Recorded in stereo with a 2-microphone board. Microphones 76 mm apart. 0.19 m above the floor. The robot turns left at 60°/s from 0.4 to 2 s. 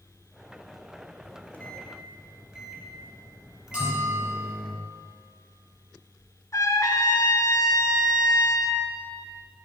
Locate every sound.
1.2 s a microwave: 35° left (ahead or behind), 2.5 m; by 4.7 s 10° right (ahead or behind), 2.5 m
3.7 s a bell: 10° right (ahead or behind), 4.5 m
6.5 s a trumpet: 40° left (ahead or behind), 1.3 m